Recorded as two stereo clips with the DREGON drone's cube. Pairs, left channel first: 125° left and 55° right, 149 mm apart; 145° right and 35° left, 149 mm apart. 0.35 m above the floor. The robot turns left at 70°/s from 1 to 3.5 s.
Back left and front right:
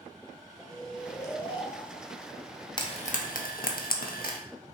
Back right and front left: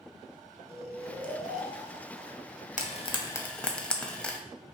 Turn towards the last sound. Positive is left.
turn(degrees=130)